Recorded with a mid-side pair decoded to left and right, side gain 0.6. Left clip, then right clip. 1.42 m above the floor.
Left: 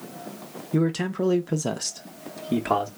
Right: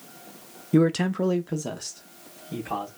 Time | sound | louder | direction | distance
0.7 | a man speaking | right 3 dB | 25° right | 0.5 m